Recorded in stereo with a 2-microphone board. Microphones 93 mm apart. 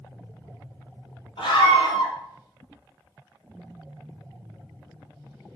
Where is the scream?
75° left (ahead or behind), 4.5 m.